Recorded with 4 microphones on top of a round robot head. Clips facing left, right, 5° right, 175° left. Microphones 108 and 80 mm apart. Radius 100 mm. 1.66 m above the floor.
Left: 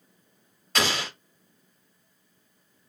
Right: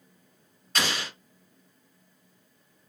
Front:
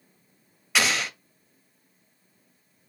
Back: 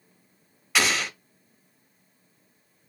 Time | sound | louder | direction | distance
0.8 | an explosion | left 3 dB, even | 85° left | 0.6 m